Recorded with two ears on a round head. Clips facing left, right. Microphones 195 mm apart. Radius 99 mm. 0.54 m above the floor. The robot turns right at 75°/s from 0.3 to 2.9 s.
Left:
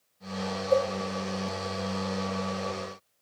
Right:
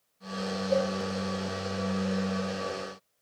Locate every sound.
0.7 s a cowbell: 35° left (ahead or behind), 8 m; by 0.9 s 50° left (ahead or behind), 8 m